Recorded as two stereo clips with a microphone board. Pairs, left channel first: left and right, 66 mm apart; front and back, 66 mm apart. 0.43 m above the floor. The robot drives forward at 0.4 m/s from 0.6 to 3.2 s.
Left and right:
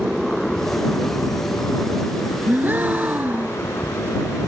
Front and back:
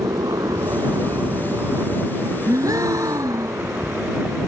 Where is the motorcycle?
175° right; by 4.5 s 125° left.